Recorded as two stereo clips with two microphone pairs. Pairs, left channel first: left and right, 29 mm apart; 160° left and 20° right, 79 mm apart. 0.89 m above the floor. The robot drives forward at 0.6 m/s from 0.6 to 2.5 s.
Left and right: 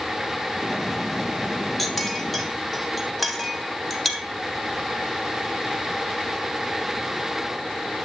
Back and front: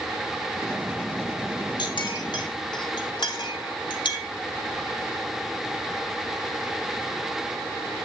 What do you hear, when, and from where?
1.8 s a clink: 170° left, 1.3 m; by 4.3 s 175° left, 1.7 m